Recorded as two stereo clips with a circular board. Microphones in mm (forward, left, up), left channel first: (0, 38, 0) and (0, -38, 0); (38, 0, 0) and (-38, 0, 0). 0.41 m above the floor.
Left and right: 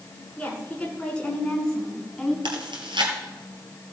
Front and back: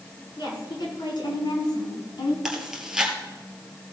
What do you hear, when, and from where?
0.4 s a woman speaking: 15° left, 4 m; by 2.4 s 5° left, 2.5 m
2.5 s chewing: 95° right, 2 m